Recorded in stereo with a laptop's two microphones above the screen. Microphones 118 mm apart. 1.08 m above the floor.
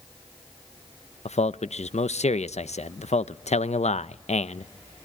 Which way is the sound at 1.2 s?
75° left (ahead or behind).